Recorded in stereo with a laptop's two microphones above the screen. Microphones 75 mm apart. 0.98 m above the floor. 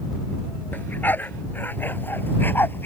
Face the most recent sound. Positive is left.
turn(degrees=30)  # may be behind; listen again after turning